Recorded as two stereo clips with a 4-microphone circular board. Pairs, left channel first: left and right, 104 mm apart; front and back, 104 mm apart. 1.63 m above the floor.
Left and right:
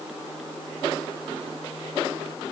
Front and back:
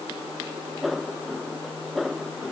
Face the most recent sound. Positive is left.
No sound to turn to.